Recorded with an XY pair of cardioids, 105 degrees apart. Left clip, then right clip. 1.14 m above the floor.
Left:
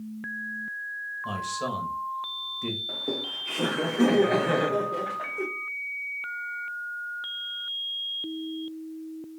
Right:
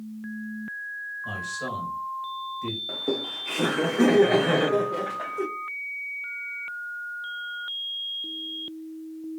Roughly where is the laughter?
Ahead.